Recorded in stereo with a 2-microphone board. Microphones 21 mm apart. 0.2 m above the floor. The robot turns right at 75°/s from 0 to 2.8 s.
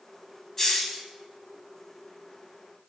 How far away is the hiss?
About 0.8 m.